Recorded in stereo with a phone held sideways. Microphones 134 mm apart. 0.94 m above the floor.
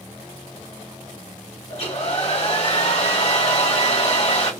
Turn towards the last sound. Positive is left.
turn(degrees=50)  # may be behind; listen again after turning